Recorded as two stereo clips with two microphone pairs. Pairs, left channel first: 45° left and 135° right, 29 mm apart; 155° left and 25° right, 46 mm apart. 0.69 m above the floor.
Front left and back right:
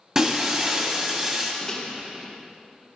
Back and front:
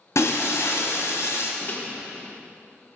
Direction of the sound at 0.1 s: 160° left.